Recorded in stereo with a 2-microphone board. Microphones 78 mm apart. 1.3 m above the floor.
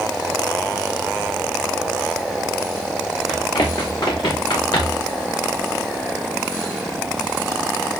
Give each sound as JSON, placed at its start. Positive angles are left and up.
{"t": 3.3, "sound": "running footsteps", "side_deg": 75, "distance_m": 5.0}